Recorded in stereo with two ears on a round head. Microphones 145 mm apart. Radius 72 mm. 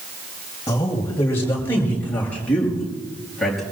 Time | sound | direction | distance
0.7 | a man speaking | 20° left (ahead or behind) | 7.5 m